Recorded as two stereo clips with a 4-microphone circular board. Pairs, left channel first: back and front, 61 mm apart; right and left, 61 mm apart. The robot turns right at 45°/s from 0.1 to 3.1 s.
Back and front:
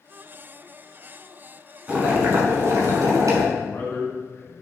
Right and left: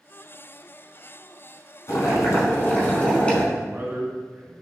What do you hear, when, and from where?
1.9 s boiling: 70° right, 1.2 m; by 3.4 s 15° right, 1.2 m
3.5 s a man speaking: 145° left, 1.5 m